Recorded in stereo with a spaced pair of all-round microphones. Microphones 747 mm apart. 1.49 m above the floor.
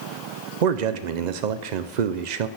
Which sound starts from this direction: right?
A man speaking, at 0.6 s.